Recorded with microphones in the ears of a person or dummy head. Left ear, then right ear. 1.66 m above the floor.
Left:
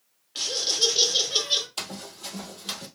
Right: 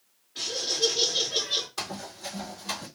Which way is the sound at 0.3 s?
65° left (ahead or behind).